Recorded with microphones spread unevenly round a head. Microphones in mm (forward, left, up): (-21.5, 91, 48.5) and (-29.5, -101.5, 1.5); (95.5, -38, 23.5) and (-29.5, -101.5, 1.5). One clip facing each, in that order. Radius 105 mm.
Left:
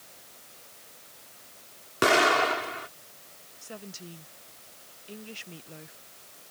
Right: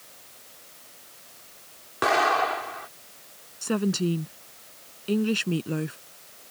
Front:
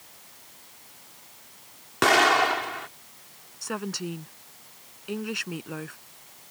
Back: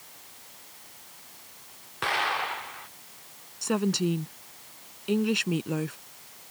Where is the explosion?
30° left.